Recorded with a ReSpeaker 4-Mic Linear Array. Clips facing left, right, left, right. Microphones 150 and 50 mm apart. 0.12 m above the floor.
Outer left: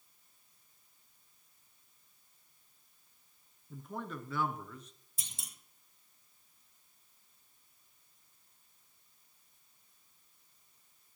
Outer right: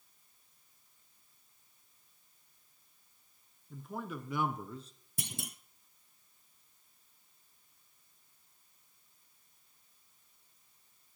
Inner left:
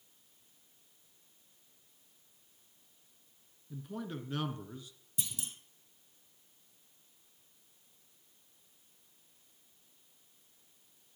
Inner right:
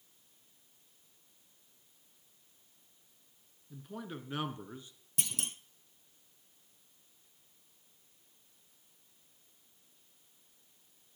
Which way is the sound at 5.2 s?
65° right (ahead or behind).